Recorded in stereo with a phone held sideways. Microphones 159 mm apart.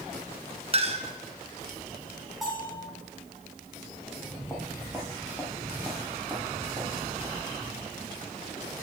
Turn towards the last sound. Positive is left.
turn(degrees=-30)  # may be behind; listen again after turning